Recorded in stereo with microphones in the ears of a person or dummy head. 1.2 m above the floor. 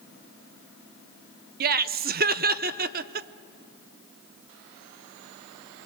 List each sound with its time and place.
1.6 s laughter: 40° right (ahead or behind), 0.6 m